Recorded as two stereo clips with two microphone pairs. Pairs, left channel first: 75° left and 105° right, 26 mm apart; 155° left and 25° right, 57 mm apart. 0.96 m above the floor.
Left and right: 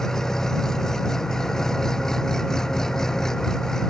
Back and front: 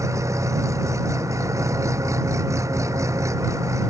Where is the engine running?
Straight ahead.